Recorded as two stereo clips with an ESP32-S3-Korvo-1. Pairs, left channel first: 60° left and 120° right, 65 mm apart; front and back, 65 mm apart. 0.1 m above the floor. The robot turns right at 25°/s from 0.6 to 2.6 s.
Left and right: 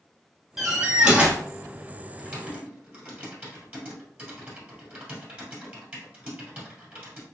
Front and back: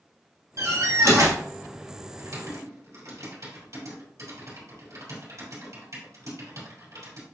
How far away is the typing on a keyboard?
About 2.5 m.